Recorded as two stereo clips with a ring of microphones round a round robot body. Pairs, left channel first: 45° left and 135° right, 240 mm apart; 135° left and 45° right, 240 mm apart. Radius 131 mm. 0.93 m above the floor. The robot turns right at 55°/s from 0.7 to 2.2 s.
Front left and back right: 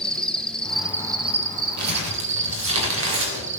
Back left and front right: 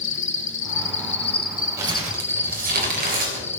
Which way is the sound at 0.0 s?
130° left.